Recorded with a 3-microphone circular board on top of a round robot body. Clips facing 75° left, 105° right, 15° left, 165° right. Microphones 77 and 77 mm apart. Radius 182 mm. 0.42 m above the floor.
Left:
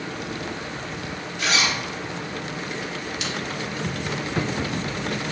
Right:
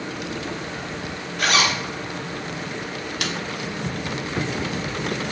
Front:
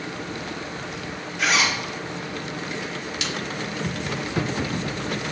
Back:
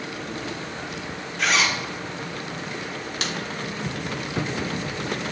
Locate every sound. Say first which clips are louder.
1.4 s a zipper: right 3 dB, even; 75° right, 2.5 m
3.2 s a snare drum: right 5 dB, back 2 dB; 125° right, 1.5 m